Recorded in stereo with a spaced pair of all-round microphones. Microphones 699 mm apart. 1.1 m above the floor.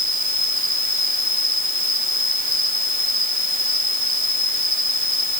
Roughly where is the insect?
Centre.